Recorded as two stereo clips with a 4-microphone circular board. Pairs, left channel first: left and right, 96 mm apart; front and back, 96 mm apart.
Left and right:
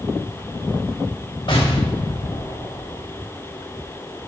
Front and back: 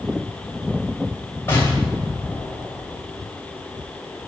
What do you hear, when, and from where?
1.5 s an explosion: 65° left, 3 m